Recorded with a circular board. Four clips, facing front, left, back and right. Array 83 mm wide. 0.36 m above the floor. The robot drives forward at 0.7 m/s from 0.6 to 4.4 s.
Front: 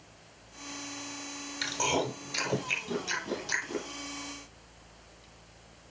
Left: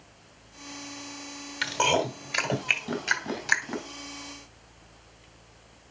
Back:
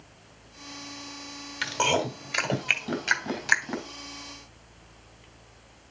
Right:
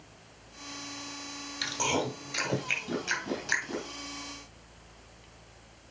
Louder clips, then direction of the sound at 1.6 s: Left 5 dB, back 4 dB; 135° left.